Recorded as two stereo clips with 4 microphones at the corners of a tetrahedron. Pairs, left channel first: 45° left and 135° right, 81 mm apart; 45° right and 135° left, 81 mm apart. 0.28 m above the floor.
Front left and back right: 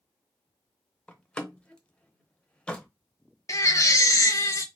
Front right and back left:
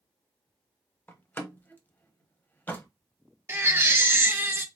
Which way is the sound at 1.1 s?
15° right.